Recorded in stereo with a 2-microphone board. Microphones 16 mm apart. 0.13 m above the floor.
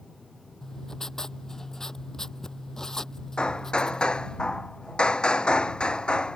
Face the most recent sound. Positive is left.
turn(degrees=65)  # may be behind; listen again after turning